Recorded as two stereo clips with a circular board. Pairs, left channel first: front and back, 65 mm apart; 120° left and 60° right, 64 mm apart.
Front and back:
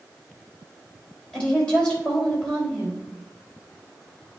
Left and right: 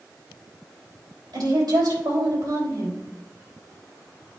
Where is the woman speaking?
75° right, 3.5 m.